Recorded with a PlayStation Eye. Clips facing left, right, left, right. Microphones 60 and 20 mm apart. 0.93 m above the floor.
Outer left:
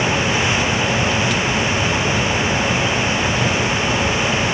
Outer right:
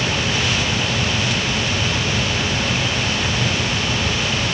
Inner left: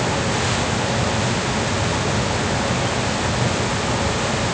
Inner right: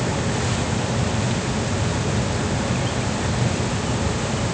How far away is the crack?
I don't hear a crack.